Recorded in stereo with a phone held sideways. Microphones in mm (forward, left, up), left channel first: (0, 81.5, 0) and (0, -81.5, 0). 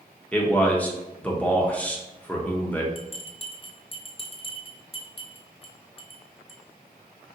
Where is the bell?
35° left (ahead or behind), 0.6 m.